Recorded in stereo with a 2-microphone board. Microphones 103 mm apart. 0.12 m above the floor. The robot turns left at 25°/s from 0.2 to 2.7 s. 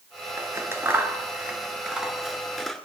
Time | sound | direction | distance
0.4 | scissors | 30° right (ahead or behind) | 1.1 m